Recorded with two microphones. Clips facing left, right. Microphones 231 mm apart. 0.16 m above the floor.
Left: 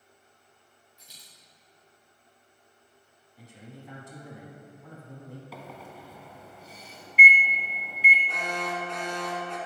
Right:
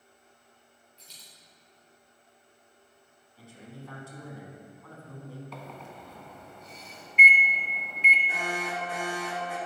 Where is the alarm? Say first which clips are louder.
Even; 5° right (ahead or behind), 1.1 m.